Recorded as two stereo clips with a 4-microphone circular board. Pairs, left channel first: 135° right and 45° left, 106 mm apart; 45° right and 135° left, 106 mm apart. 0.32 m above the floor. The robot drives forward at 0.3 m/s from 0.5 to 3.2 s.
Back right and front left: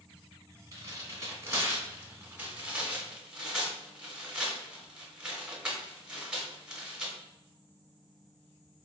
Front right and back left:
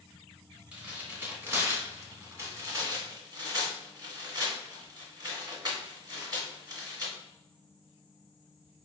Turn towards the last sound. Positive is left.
turn(degrees=130)